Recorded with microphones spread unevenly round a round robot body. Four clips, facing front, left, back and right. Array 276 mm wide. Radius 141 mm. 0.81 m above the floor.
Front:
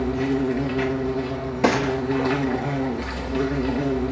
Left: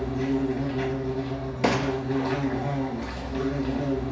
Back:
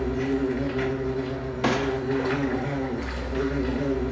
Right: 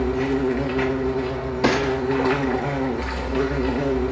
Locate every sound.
0.0 s an insect: 55° right, 0.8 m
1.6 s a gunshot: straight ahead, 1.0 m